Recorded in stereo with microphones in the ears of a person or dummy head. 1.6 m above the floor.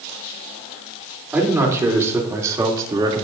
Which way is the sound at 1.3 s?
10° right (ahead or behind).